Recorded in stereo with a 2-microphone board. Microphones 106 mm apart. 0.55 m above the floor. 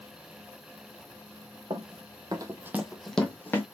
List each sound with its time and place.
1.7 s running footsteps: 60° right (ahead or behind), 0.9 m; by 3.6 s 20° left (ahead or behind), 1.1 m